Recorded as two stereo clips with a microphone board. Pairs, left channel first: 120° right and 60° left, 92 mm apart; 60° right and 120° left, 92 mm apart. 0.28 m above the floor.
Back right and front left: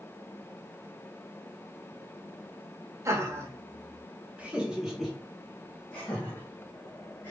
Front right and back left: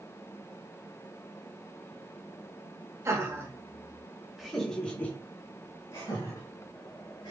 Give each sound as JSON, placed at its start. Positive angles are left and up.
{"t": 3.0, "sound": "laughter", "azimuth_deg": 90, "distance_m": 1.5}